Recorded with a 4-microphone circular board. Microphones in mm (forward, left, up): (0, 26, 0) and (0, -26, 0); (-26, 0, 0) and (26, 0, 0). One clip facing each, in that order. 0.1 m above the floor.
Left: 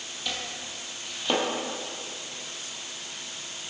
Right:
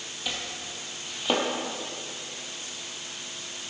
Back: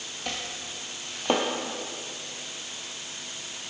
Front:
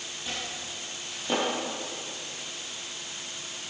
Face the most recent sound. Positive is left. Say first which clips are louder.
# even, back 1 dB
turn(degrees=-170)